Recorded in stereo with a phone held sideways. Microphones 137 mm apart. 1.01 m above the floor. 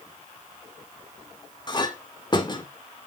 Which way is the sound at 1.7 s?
35° left (ahead or behind).